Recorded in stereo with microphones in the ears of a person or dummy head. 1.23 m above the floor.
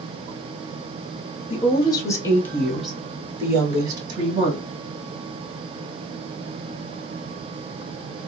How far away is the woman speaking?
About 1.5 m.